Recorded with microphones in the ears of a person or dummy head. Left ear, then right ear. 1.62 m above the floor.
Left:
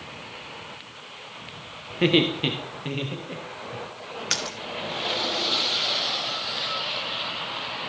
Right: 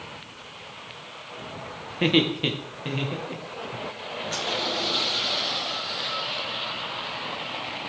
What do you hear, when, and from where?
1.9 s laughter: 5° left (ahead or behind), 0.9 m
4.3 s a splash: 55° left (ahead or behind), 0.9 m